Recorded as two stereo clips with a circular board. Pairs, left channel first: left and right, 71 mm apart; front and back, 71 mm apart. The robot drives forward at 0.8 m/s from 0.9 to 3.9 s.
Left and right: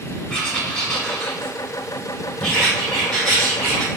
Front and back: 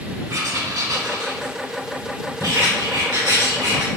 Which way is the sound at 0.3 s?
170° left.